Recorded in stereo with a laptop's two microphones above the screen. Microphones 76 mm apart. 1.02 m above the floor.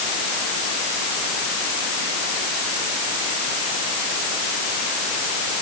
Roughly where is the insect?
No insect in this recording.